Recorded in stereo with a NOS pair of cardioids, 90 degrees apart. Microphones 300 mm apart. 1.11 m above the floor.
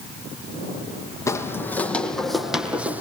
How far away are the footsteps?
About 3.5 m.